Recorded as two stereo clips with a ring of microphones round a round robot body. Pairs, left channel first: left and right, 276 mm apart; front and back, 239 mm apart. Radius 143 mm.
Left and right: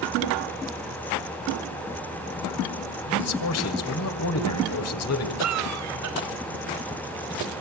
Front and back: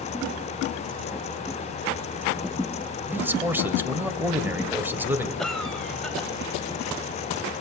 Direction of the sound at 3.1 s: 100° left.